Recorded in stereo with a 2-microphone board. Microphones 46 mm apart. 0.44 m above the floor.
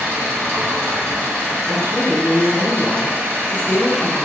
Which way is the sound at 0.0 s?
60° right (ahead or behind).